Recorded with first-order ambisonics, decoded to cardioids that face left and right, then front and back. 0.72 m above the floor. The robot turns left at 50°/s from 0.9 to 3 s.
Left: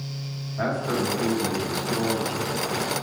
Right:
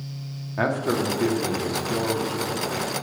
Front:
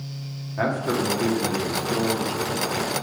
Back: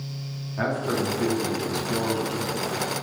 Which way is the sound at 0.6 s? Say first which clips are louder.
Right 2 dB, front 2 dB; 85° right.